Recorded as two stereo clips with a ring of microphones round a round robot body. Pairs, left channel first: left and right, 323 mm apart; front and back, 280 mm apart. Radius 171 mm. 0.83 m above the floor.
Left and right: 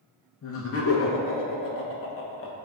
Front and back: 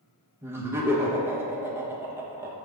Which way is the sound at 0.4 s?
100° left.